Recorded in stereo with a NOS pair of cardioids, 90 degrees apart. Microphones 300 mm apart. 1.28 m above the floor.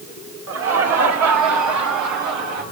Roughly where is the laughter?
Ahead right.